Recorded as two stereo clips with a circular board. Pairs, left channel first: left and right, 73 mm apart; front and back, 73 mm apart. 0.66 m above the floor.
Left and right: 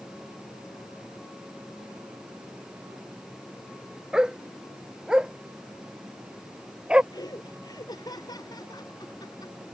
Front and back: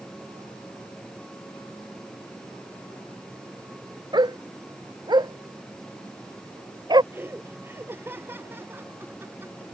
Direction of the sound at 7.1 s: 120° left.